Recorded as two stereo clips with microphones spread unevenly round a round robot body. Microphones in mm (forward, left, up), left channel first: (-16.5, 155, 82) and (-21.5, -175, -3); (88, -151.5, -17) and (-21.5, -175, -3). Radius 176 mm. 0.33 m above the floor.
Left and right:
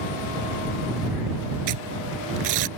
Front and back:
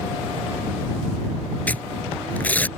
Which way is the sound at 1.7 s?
65° right.